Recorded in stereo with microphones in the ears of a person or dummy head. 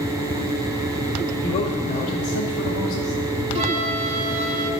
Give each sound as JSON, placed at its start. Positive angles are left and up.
{"t": 1.4, "sound": "a man speaking", "side_deg": 35, "distance_m": 1.2}
{"t": 3.5, "sound": "a flute", "side_deg": -25, "distance_m": 1.0}